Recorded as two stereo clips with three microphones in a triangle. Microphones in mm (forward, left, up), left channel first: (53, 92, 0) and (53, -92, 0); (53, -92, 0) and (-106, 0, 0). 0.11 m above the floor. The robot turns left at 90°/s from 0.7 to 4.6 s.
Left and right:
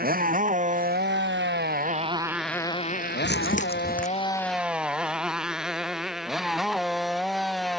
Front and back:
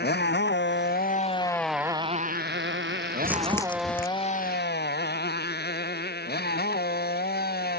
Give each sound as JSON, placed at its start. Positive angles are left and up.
{"t": 0.0, "sound": "a motorcycle", "azimuth_deg": -55}
{"t": 3.2, "sound": "crumpling", "azimuth_deg": 75}